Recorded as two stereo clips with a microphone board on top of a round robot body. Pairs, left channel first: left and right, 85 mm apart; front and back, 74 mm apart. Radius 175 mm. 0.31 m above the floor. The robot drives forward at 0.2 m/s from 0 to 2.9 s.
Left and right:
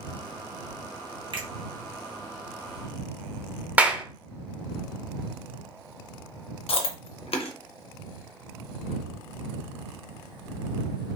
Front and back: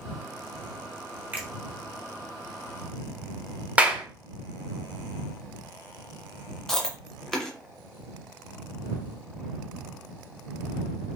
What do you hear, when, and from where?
1.3 s a finger snap: 115° right, 1.2 m
3.8 s a clap: 135° right, 0.9 m
6.7 s chewing: 85° left, 0.5 m